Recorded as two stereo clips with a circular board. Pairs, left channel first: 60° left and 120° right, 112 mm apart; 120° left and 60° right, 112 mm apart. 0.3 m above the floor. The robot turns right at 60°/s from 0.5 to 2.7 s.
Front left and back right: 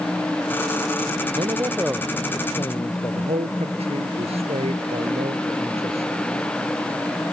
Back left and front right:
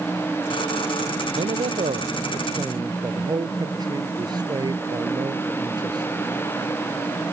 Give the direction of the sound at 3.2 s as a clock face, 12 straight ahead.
4 o'clock.